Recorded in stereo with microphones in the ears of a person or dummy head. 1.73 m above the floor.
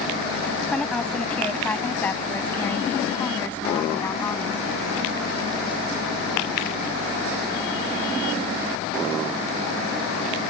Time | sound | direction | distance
0.7 | a woman speaking | 10° left (ahead or behind) | ?